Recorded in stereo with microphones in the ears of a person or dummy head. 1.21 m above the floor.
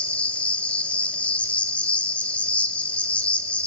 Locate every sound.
0.0 s an insect: 10° left (ahead or behind), 1.4 m